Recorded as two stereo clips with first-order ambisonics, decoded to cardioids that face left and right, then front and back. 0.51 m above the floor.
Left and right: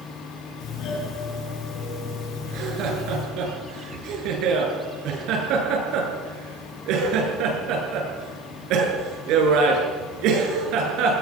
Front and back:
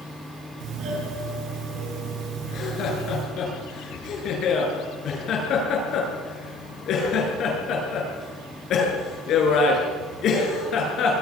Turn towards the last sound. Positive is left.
turn(degrees=-50)